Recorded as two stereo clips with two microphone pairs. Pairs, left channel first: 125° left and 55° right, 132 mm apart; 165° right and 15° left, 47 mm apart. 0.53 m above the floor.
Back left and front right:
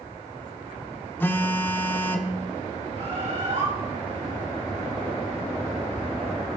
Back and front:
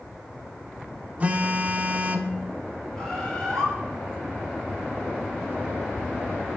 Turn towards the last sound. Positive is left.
turn(degrees=-90)